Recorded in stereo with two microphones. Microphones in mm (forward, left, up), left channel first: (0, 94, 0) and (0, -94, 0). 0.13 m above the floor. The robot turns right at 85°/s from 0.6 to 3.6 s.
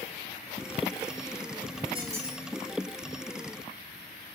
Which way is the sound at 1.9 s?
35° right.